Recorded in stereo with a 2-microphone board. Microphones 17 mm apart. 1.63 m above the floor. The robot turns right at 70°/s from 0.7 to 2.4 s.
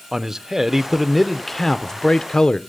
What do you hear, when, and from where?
0.1 s a man speaking: 35° right, 0.7 m; by 2.6 s 85° left, 0.7 m